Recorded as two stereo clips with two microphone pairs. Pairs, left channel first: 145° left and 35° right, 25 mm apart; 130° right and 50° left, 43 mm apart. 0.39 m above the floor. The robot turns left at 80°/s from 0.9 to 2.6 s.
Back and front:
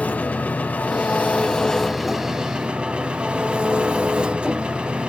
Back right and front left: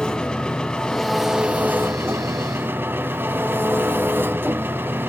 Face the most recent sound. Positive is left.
turn(degrees=20)